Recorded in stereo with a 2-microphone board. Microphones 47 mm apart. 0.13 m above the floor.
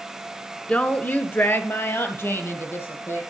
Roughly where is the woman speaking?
Left.